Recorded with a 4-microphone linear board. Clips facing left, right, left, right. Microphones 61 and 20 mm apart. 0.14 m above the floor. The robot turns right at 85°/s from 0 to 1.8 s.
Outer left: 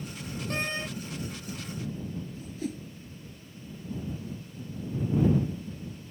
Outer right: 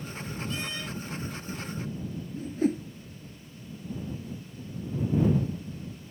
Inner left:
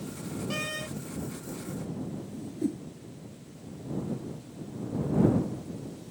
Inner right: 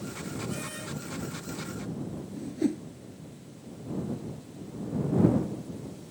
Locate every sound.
0.5 s a door slam: 120° left; by 0.9 s 155° left
2.3 s a whoosh: 40° right (ahead or behind)